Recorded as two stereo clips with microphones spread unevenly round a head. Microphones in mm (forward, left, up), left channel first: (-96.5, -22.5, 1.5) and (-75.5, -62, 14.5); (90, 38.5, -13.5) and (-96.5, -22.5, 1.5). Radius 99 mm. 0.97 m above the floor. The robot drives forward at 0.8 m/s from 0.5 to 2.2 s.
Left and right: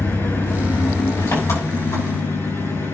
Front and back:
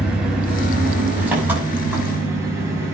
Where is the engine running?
110° left, 6 m; by 2.9 s 120° left, 7 m.